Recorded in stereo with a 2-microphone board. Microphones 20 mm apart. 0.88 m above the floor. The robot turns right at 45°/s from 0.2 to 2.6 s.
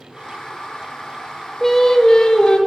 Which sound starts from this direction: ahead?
Singing, at 1.6 s.